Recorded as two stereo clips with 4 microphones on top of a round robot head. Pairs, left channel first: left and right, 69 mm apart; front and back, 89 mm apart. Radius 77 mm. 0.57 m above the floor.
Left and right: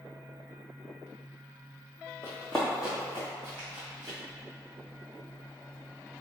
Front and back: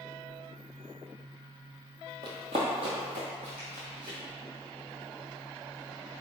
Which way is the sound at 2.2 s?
160° left.